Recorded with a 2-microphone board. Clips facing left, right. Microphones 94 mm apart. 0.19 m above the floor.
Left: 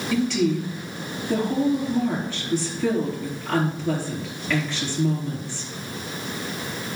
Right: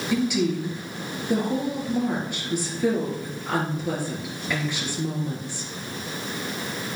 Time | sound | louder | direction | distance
0.1 | a woman speaking | left 2 dB | 15° right (ahead or behind) | 4 m